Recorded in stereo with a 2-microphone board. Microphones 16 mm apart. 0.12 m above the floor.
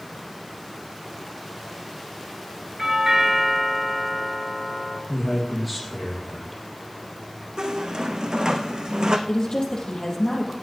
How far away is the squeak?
About 1.3 m.